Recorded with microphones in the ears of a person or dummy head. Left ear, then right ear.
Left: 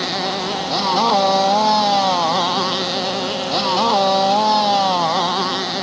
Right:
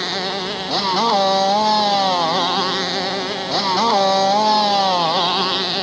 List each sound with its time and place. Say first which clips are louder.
0.0 s a motorcycle: left 1 dB; centre (ahead or behind); by 5.8 s 10° right (ahead or behind)